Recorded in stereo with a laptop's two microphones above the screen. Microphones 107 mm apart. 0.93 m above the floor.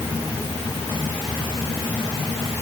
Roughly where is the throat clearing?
No throat clearing in this recording.